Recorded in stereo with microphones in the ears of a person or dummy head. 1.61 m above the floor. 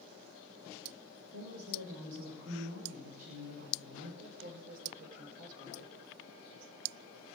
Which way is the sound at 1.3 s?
80° right.